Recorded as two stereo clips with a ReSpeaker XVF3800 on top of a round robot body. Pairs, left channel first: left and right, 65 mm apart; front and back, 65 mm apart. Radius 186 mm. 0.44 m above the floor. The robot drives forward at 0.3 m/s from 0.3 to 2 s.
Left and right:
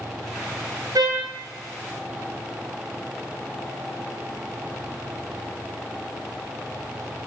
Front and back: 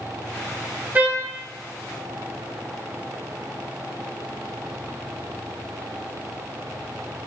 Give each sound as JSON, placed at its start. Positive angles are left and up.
{"t": 0.9, "sound": "a trumpet", "azimuth_deg": -120, "distance_m": 0.7}